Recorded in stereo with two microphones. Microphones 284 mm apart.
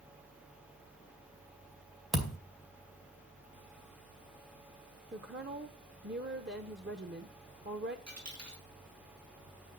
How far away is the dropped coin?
About 5.5 m.